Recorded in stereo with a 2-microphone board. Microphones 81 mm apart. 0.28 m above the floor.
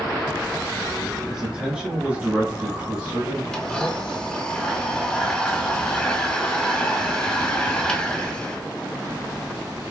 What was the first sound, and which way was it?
A man speaking, 5° right (ahead or behind).